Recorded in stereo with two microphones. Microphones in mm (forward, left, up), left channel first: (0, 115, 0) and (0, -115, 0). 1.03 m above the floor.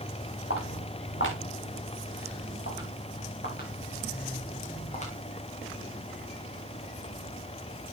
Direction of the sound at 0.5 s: 65° left (ahead or behind).